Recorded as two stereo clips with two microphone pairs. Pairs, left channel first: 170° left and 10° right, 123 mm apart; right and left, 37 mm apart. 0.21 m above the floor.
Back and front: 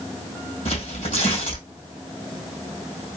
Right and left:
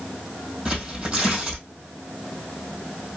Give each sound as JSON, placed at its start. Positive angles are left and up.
{"t": 0.7, "sound": "tearing paper", "azimuth_deg": 160, "distance_m": 2.0}